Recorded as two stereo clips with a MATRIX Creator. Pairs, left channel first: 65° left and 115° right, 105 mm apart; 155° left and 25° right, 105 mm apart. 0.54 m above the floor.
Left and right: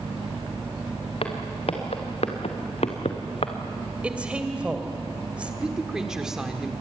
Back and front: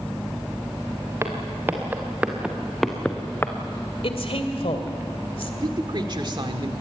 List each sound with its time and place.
1.2 s footsteps: 40° left, 4 m; by 3.5 s 90° left, 2 m
4.0 s a woman speaking: 170° left, 2.5 m
5.6 s a woman speaking: 30° right, 1.7 m